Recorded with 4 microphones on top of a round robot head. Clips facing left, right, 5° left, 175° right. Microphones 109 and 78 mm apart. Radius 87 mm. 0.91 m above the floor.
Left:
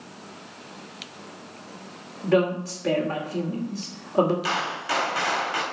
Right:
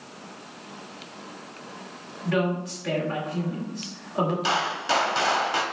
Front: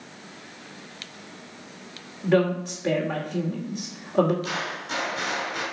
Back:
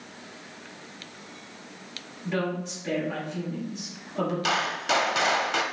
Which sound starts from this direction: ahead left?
A woman speaking, at 2.2 s.